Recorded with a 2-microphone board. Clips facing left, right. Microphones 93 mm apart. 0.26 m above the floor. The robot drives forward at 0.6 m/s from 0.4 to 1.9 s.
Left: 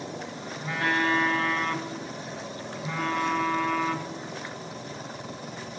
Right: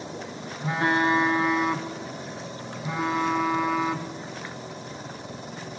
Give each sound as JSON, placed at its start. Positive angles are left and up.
{"t": 0.6, "sound": "a phone buzzing", "side_deg": -25, "distance_m": 0.7}